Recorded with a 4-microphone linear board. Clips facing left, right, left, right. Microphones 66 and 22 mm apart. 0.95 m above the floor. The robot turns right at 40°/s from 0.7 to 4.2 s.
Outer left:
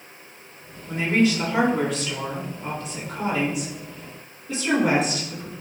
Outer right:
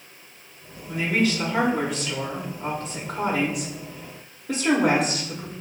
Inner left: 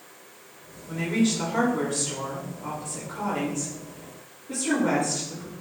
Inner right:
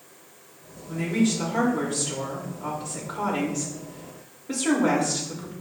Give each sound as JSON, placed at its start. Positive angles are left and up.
{"t": 0.9, "sound": "a woman speaking", "azimuth_deg": 140, "distance_m": 4.0}